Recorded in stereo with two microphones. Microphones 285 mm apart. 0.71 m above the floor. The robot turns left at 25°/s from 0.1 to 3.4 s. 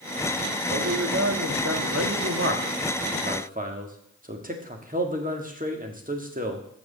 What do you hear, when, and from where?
0.7 s a man speaking: 80° right, 1.4 m; by 6.7 s 145° right, 1.4 m